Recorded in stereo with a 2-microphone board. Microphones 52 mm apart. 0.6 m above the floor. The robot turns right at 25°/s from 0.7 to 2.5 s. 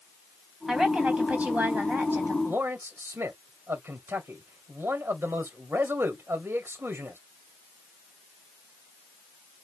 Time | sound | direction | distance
0.7 | a woman speaking | 170° right | 3.5 m
2.5 | a man speaking | 45° right (ahead or behind) | 2 m